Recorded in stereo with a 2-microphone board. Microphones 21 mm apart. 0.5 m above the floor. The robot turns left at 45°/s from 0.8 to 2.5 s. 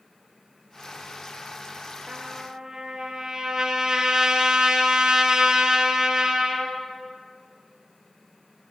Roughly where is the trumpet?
Right.